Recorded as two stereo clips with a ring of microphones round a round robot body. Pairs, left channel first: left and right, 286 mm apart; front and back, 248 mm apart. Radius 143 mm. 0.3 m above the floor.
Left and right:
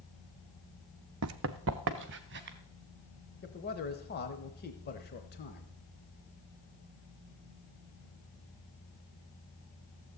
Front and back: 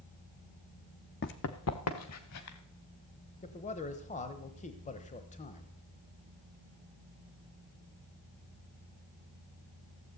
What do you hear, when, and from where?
1.2 s running footsteps: 55° right, 0.7 m; by 2.6 s 35° right, 2.5 m
3.4 s a man speaking: 50° left, 1.1 m